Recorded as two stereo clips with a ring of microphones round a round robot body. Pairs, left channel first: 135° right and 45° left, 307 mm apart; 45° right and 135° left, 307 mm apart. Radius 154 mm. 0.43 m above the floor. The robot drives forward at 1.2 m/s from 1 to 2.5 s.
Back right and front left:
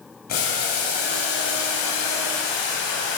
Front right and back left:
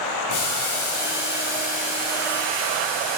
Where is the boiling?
75° right, 1.6 m; by 3.2 s 135° right, 2 m.